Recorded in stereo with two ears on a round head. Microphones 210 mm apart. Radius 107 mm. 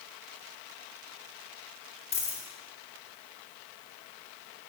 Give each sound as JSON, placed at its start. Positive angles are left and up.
{"t": 2.1, "sound": "a dropped coin", "side_deg": 25, "distance_m": 1.2}